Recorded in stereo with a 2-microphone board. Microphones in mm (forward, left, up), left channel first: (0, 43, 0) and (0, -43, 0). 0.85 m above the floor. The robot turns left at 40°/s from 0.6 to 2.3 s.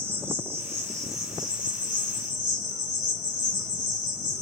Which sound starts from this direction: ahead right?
An insect, at 0.0 s.